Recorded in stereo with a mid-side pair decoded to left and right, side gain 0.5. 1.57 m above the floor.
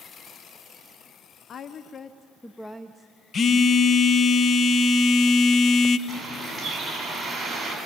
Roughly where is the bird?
Ahead.